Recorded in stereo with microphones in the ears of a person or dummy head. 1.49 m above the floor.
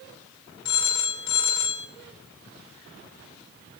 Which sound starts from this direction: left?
A phone ringing, at 0.7 s.